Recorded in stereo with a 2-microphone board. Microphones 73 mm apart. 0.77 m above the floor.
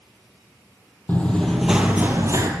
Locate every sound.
1.1 s running footsteps: 20° left (ahead or behind), 1.2 m; by 2.5 s 45° right (ahead or behind), 1.0 m